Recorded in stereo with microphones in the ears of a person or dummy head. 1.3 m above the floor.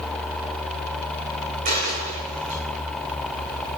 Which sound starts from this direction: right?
A dropped coin, at 1.6 s.